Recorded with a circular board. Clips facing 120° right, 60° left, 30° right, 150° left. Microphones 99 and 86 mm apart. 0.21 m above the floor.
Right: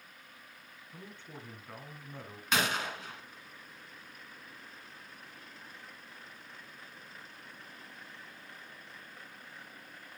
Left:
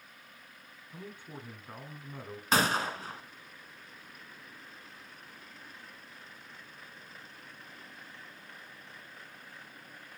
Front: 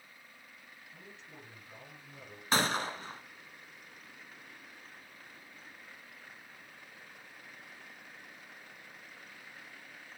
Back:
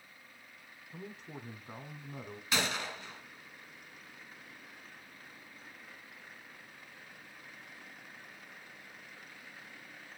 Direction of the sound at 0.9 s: 135° left.